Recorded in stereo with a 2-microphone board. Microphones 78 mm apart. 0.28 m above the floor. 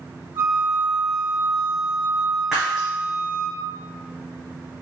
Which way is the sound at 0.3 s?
25° right (ahead or behind).